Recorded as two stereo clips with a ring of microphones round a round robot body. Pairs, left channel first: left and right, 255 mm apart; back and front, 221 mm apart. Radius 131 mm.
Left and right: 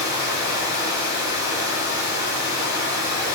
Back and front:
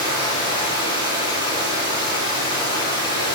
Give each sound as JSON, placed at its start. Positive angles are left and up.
{"t": 0.0, "sound": "running water", "azimuth_deg": -15, "distance_m": 6.5}